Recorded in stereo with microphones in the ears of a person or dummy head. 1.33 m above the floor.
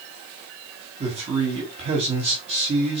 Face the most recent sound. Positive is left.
turn(degrees=-30)  # may be behind; listen again after turning